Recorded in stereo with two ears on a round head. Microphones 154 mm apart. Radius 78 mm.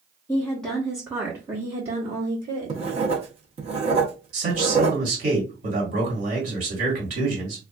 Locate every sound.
0.3 s a woman speaking: 20° left (ahead or behind), 0.8 m; by 2.8 s 50° right (ahead or behind), 1.6 m
2.7 s writing: 35° right (ahead or behind), 0.8 m
4.3 s a man speaking: 45° right (ahead or behind), 1.8 m